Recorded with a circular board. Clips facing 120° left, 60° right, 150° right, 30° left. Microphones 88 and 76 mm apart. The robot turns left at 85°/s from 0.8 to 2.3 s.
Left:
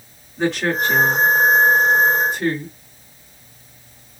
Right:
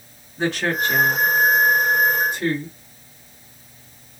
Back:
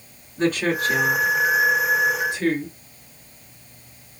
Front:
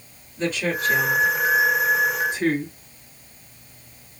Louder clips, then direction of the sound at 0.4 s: Left 2 dB, back 3 dB; 145° right.